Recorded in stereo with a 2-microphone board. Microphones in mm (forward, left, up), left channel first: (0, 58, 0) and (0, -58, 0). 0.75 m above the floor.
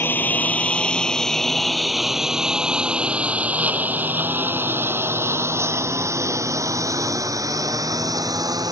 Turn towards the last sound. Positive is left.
turn(degrees=-30)  # may be behind; listen again after turning